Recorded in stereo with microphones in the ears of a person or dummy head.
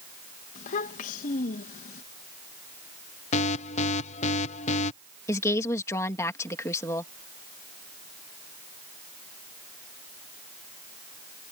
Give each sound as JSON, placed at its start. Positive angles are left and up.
{"t": 0.6, "sound": "a child speaking", "side_deg": 50}
{"t": 3.3, "sound": "an alarm", "side_deg": 40}
{"t": 5.3, "sound": "a woman speaking", "side_deg": 15}